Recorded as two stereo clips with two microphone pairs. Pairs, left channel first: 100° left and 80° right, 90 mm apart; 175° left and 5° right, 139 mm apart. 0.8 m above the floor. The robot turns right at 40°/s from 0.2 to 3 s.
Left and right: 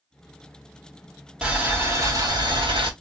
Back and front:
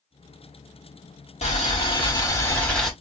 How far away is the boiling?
About 1.2 m.